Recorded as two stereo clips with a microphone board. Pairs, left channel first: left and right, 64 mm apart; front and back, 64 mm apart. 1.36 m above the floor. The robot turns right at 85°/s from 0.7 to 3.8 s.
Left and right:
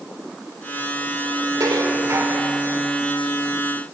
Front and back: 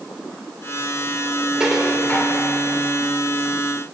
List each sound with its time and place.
1.6 s dishes clattering: 100° right, 3 m; by 2.5 s 25° right, 3 m